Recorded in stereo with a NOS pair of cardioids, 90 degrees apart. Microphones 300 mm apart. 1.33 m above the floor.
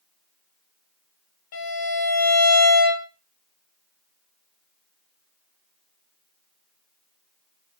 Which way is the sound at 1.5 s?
65° left.